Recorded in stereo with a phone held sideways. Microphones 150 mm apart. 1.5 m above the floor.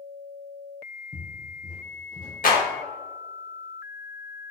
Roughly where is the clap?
Left.